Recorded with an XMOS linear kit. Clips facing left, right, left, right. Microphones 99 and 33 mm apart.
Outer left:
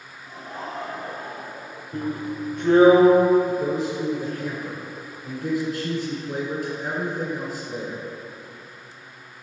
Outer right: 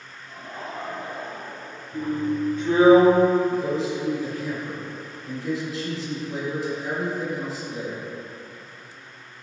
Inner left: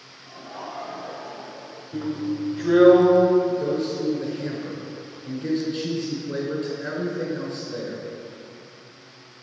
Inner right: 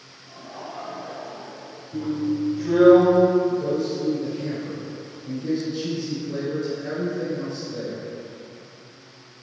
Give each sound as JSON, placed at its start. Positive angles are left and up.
{"t": 0.2, "sound": "laughter", "side_deg": 25, "distance_m": 1.1}
{"t": 1.9, "sound": "a drill", "side_deg": 65, "distance_m": 1.3}
{"t": 3.5, "sound": "a man speaking", "side_deg": 55, "distance_m": 1.8}